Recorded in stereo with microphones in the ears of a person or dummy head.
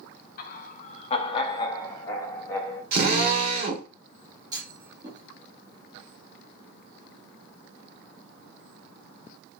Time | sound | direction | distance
0.4 | laughter | 55° left (ahead or behind) | 1.0 m
2.9 | a drill | 50° right (ahead or behind) | 1.2 m
4.5 | a clunk | 20° right (ahead or behind) | 1.8 m